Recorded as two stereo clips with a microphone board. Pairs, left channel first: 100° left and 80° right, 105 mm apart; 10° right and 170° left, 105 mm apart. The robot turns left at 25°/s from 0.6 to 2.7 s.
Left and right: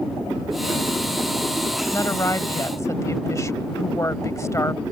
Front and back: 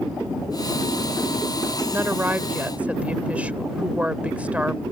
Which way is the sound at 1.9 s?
125° left.